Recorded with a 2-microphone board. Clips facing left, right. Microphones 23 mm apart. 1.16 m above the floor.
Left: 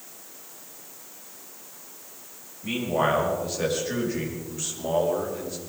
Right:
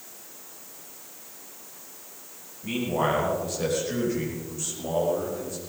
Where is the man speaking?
20° left (ahead or behind), 5.5 m; by 5.6 s 30° left (ahead or behind), 4 m.